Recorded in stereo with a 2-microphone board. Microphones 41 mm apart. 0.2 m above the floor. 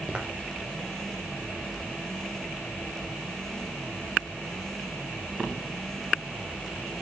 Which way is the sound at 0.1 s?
25° right (ahead or behind).